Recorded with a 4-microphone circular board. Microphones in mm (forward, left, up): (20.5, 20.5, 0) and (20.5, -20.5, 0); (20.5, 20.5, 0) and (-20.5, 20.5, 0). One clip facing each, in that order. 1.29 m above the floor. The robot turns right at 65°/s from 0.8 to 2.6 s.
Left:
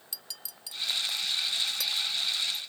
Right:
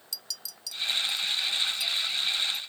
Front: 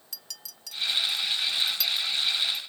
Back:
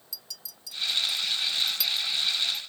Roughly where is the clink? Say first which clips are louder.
Right 5 dB, even; ahead left.